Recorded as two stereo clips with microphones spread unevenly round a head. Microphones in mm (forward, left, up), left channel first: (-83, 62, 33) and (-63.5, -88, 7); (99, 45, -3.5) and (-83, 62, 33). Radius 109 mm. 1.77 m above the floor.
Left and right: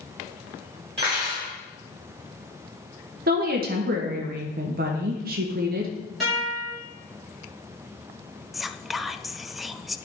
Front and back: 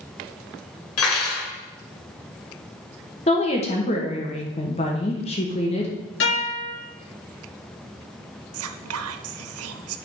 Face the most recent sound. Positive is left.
turn(degrees=-170)